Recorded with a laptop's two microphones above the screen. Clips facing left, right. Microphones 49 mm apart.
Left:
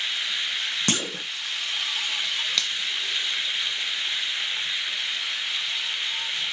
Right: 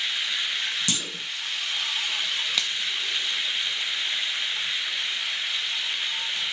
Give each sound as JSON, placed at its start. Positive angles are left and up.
{"t": 0.9, "sound": "a clunk", "side_deg": 50, "distance_m": 0.9}
{"t": 2.6, "sound": "a finger snap", "side_deg": -5, "distance_m": 0.7}